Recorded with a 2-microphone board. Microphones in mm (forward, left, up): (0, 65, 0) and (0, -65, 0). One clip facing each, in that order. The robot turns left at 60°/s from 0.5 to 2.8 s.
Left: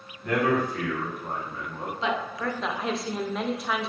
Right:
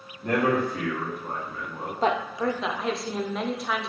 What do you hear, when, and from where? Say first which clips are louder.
0.2 s a man speaking: right 1 dB; 145° right, 1.4 m; by 1.9 s 130° left, 1.4 m
2.0 s a woman speaking: right 5 dB; 135° right, 0.5 m; by 3.9 s straight behind, 0.5 m